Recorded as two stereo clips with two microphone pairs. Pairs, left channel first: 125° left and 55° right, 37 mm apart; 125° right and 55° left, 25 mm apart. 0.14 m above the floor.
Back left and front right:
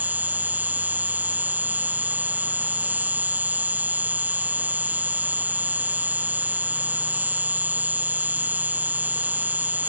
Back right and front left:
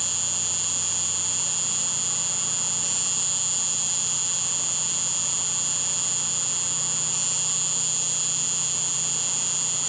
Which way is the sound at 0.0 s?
30° right.